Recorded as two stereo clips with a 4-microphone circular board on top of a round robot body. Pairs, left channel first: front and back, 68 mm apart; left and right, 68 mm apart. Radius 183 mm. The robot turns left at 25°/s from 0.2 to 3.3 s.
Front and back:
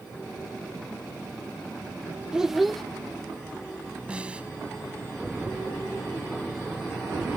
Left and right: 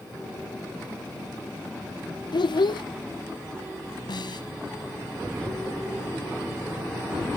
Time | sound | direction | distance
2.3 | a child speaking | 100° left | ?
4.1 | a snare drum | 105° left | ?